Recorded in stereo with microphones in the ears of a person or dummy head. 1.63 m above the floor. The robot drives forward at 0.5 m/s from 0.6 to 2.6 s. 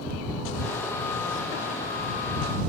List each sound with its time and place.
Only background noise.